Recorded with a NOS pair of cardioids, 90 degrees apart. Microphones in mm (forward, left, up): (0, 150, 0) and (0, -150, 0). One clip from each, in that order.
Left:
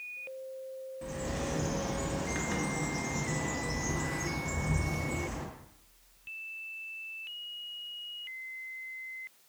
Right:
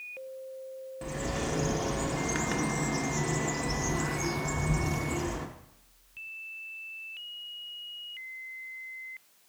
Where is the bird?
30° right, 0.7 m.